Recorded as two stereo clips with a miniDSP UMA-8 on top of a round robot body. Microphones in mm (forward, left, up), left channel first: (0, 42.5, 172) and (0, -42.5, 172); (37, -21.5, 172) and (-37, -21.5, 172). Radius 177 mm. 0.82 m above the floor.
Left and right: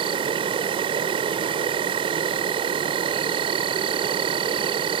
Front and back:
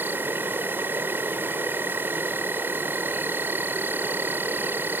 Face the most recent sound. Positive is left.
turn(degrees=-115)